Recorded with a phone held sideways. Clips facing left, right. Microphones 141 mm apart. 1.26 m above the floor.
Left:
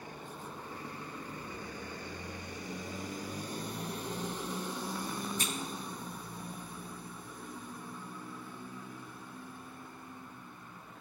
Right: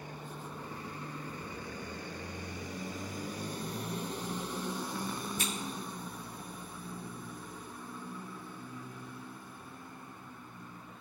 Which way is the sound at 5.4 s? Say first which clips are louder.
Right 1 dB; 45° left (ahead or behind).